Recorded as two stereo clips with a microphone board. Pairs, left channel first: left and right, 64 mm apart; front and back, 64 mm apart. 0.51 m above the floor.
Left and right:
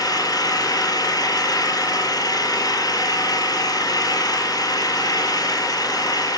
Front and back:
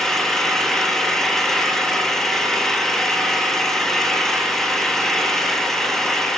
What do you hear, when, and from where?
0.0 s an engine running: 85° left, 4 m